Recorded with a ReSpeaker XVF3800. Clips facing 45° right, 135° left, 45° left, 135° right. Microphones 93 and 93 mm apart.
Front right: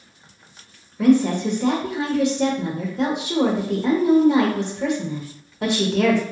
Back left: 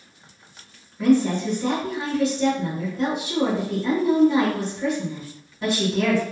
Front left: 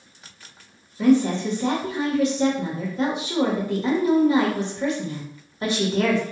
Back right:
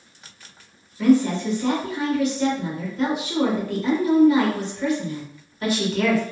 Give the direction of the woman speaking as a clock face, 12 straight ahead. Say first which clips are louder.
Front right 2 dB, even; 1 o'clock.